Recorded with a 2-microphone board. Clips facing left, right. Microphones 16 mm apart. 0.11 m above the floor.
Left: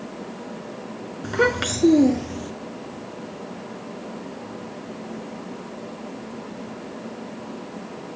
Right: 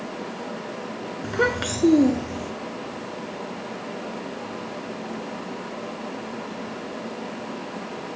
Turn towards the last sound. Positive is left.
turn(degrees=10)  # may be behind; listen again after turning